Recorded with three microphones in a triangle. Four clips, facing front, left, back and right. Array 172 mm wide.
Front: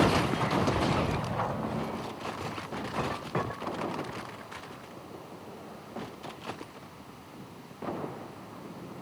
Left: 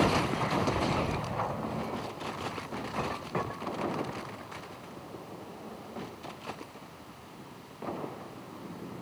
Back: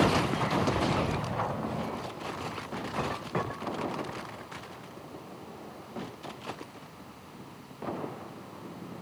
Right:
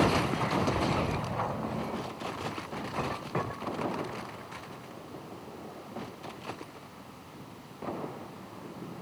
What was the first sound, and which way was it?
Only background noise.